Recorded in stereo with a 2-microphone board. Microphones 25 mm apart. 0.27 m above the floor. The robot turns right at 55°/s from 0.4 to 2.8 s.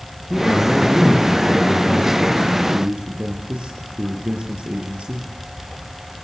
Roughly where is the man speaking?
Left.